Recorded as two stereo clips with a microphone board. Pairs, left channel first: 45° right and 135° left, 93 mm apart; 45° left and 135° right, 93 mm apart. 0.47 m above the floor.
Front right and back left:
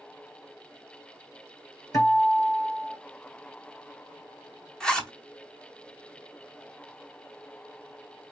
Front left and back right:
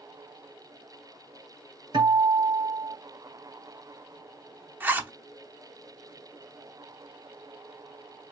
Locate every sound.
1.9 s a guitar: 100° right, 3 m
4.8 s a zipper: 110° right, 0.7 m